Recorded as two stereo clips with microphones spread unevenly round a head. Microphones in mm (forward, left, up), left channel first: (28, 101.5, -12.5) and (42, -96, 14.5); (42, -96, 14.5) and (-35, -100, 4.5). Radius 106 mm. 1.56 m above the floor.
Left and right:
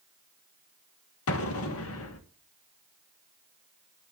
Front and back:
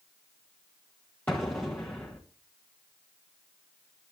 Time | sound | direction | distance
1.3 | an explosion | 80° left | 1.4 m